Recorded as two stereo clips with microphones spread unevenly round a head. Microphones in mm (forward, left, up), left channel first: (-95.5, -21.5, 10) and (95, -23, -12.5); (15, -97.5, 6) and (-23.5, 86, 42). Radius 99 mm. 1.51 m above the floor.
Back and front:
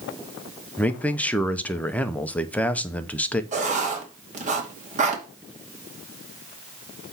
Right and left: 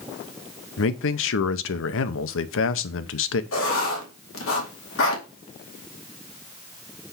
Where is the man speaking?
100° right, 0.8 m.